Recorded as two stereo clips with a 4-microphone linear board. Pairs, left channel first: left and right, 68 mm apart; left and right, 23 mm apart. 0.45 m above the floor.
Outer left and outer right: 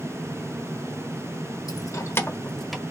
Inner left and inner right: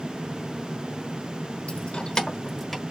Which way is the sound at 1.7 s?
60° left (ahead or behind).